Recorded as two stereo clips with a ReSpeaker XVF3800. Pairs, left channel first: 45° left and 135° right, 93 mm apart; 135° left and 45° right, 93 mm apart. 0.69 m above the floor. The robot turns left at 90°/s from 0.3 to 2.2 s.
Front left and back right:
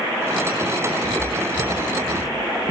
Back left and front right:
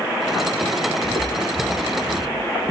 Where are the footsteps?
50° right, 1.5 m; by 2.7 s 135° right, 3 m.